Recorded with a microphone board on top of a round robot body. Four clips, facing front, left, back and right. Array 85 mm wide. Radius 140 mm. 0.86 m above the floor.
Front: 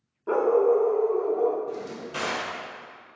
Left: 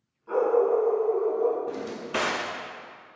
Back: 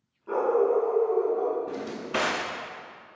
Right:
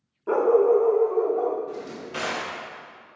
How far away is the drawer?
About 0.7 m.